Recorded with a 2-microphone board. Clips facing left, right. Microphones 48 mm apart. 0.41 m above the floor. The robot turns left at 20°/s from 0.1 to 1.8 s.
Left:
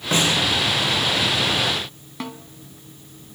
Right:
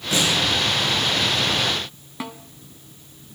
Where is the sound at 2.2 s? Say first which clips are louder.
Left 1 dB; 5° right (ahead or behind), 0.8 m.